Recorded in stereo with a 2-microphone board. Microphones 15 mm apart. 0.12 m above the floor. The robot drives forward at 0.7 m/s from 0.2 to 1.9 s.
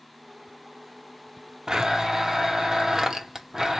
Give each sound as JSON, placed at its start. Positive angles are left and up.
{"t": 1.7, "sound": "a blender", "side_deg": -45, "distance_m": 0.5}